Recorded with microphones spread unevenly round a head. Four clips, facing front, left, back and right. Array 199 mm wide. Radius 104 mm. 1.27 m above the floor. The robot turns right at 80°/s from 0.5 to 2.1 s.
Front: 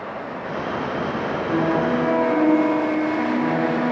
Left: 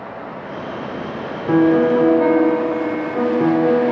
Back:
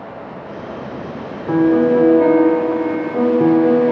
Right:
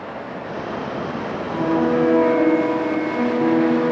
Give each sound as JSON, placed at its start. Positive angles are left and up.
{"t": 1.5, "sound": "a piano", "azimuth_deg": 110, "distance_m": 4.0}